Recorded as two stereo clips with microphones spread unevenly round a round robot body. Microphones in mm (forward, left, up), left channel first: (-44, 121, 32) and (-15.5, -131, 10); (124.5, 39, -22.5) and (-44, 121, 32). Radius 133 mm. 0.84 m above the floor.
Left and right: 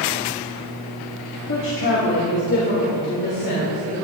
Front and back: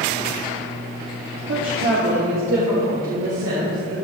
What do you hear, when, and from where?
1.5 s a woman speaking: 135° left, 2 m; by 4.0 s 145° left, 5.5 m